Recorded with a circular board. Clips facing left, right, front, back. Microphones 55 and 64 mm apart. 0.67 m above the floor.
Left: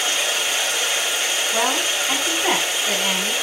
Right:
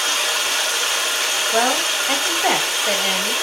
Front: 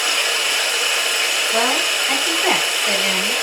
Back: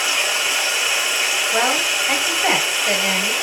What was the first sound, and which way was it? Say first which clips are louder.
Running water: right 1 dB, even; 100° right.